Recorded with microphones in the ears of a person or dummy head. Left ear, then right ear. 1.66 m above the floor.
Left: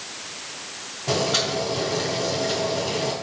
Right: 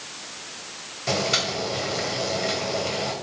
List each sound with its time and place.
1.1 s boiling: 50° right (ahead or behind), 2 m